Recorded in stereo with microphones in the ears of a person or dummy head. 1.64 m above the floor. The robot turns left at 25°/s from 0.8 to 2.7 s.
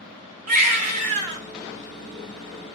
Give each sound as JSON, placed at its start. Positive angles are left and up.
{"t": 0.5, "sound": "a baby crying", "side_deg": -45, "distance_m": 1.3}